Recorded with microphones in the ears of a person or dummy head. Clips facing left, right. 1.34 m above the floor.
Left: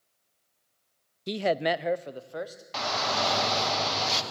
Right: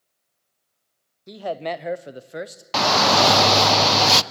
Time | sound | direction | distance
1.3 | a man speaking | 40° left (ahead or behind) | 0.6 m
2.7 | a shout | 70° right (ahead or behind) | 0.7 m